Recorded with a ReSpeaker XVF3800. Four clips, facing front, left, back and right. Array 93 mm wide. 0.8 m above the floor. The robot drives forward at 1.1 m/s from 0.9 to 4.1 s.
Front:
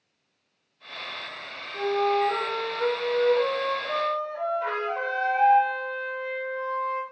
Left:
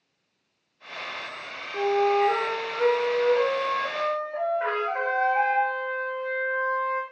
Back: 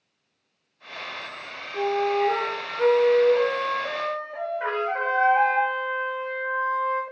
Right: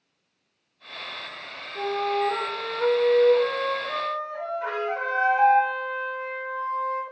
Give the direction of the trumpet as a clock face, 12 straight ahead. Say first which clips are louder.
Left 1 dB, back 2 dB; 7 o'clock.